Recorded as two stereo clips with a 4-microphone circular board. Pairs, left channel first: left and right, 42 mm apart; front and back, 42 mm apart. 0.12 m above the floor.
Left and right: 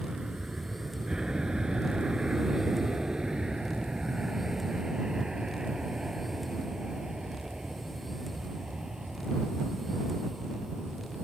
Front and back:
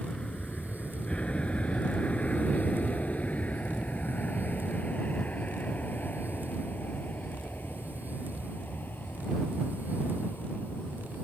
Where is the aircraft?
40° right; by 11.2 s 20° right.